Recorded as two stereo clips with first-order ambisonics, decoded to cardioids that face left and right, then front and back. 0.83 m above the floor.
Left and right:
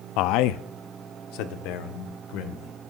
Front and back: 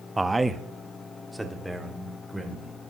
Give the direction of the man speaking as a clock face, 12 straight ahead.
9 o'clock.